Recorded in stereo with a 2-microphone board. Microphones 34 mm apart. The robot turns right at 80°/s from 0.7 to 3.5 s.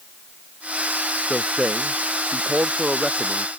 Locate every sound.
1.3 s a man speaking: 170° right; by 3.5 s 5° left